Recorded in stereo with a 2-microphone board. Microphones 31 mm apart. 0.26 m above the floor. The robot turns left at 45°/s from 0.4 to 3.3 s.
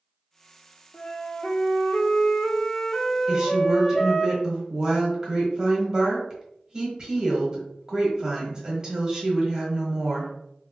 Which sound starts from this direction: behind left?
A flute, at 0.9 s.